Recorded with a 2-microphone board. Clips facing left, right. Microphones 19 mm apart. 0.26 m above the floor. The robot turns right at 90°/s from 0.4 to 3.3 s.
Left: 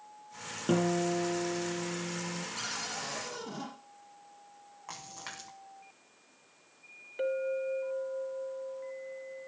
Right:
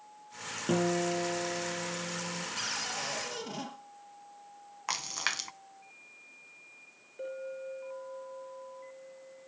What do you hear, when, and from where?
0.7 s a guitar: 15° left, 5.5 m; by 2.5 s 175° left, 5.5 m
2.6 s a cupboard door: 130° right, 5.5 m; by 3.7 s 65° right, 5.5 m
4.9 s a splash: 70° right (ahead or behind), 0.6 m
7.2 s a clink: 55° left (ahead or behind), 3 m